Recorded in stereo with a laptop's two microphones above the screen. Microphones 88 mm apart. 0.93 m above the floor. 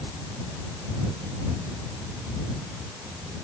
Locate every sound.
Only background noise.